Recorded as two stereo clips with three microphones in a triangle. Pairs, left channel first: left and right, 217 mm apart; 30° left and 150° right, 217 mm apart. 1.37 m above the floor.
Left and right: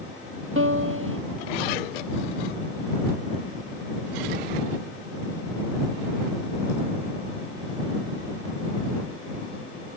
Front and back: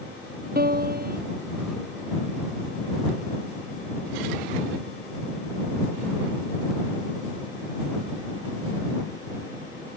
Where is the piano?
105° right.